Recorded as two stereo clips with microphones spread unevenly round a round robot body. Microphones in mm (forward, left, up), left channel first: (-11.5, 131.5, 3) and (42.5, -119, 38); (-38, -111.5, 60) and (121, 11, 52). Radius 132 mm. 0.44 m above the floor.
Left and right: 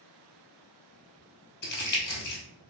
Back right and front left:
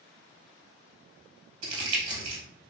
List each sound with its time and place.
1.6 s crumpling: 50° left, 1.7 m